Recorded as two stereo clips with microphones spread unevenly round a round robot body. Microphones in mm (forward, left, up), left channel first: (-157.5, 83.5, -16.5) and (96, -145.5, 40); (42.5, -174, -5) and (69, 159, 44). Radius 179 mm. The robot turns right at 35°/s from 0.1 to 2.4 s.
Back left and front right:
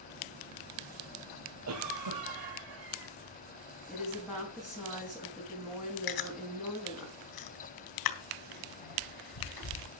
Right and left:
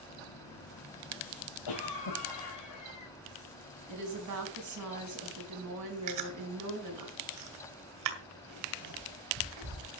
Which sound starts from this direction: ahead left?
A woman speaking, at 3.9 s.